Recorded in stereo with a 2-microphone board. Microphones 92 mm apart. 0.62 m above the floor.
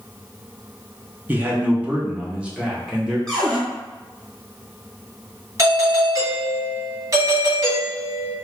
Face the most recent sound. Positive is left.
turn(degrees=-35)  # may be behind; listen again after turning